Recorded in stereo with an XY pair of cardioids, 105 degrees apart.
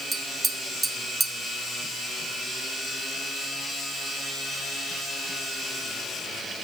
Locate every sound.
0.1 s tapping: 25° right, 1.0 m